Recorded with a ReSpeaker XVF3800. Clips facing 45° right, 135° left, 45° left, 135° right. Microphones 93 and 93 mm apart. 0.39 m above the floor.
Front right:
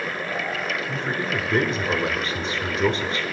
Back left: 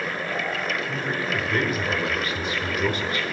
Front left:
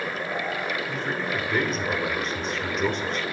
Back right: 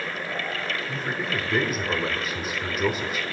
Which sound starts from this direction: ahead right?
A man speaking, at 0.9 s.